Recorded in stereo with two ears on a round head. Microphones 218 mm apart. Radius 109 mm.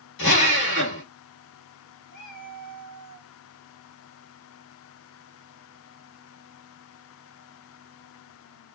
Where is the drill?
50° left (ahead or behind), 1.5 m.